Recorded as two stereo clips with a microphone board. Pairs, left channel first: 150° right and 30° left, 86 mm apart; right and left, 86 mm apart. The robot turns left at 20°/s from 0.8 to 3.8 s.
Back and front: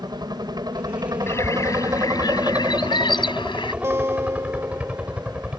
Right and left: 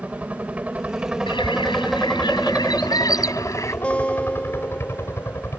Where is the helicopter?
20° left; by 5.6 s 40° right.